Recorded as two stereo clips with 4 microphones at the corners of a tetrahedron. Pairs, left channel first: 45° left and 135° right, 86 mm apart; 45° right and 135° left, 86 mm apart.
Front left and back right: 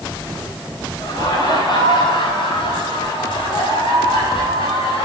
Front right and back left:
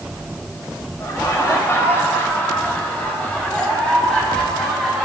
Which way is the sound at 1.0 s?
10° left.